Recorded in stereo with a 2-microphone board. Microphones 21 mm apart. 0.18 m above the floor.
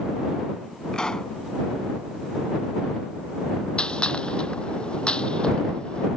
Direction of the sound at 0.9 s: 35° left (ahead or behind).